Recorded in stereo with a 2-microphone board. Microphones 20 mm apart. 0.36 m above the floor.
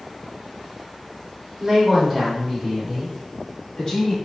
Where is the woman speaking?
30° right (ahead or behind), 1.2 m; by 4.2 s 35° left (ahead or behind), 1.9 m.